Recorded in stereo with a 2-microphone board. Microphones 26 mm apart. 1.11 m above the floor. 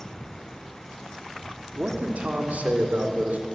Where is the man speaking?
70° right (ahead or behind), 2.5 m; by 3.5 s 80° right, 4 m.